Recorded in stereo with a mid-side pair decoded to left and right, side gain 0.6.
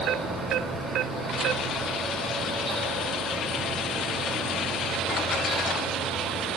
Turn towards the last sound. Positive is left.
turn(degrees=10)